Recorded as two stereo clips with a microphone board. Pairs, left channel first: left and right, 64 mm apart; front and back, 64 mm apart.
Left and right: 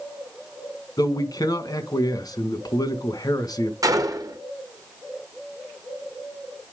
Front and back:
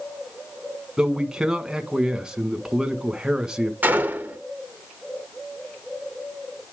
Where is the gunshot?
115° right, 1.3 m.